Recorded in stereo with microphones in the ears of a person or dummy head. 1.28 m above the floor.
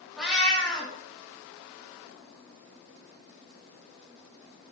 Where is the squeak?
I don't hear a squeak.